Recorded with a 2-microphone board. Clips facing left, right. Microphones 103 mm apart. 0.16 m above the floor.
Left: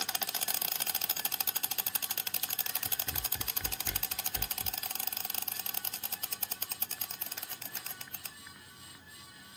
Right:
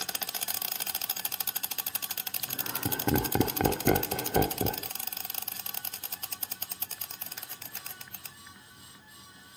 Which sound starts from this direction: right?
Laughter, at 2.4 s.